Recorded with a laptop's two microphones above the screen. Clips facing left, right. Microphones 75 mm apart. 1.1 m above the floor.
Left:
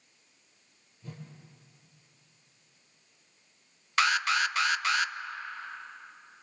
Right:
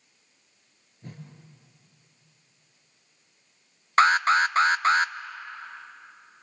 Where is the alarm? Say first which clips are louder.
Right 7 dB; 40° right (ahead or behind), 0.5 m.